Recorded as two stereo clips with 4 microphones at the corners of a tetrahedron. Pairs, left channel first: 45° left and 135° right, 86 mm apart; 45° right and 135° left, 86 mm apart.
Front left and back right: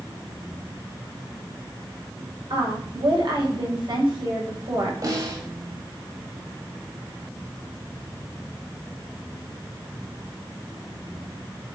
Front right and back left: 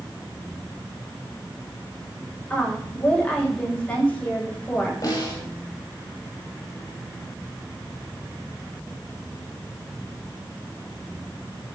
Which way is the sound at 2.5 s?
120° right.